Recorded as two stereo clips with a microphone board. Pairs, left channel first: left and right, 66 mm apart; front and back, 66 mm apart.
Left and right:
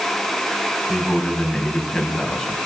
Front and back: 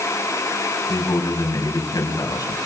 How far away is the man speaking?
About 5.5 m.